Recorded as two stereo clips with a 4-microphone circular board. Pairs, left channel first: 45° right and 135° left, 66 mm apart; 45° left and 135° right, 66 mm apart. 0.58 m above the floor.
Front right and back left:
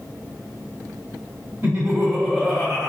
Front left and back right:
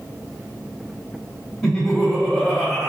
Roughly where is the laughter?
Behind left.